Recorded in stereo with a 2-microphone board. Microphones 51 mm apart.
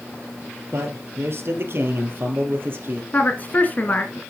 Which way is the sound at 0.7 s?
55° right (ahead or behind).